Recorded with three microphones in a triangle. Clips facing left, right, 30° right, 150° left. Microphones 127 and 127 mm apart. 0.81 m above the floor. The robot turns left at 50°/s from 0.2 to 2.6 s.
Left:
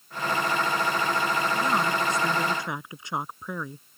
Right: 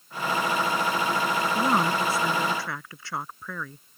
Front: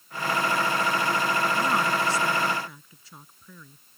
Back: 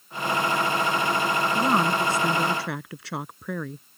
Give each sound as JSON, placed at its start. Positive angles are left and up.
{"t": 1.6, "sound": "a woman speaking", "azimuth_deg": -145}